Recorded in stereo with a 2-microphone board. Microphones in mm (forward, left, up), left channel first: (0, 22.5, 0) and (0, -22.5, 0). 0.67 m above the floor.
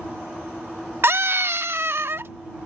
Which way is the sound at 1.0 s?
60° right (ahead or behind).